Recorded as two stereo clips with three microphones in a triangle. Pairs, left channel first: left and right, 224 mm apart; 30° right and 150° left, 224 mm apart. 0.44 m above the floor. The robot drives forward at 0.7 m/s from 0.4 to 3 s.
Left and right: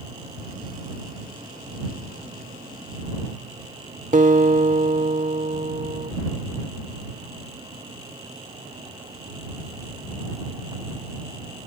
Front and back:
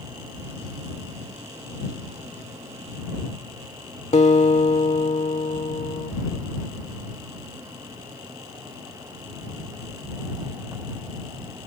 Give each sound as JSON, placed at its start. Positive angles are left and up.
{"t": 4.1, "sound": "a guitar", "azimuth_deg": -65}